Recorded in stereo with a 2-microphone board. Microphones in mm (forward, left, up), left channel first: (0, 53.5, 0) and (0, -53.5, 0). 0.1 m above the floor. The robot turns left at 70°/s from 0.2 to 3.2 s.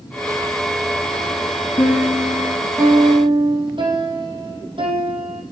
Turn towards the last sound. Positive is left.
turn(degrees=-55)